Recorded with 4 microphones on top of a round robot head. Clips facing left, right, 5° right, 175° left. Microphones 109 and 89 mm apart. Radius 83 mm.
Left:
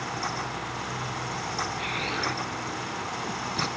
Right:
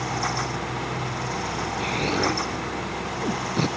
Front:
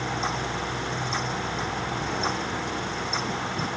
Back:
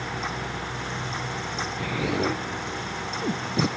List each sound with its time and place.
1.8 s an explosion: 140° right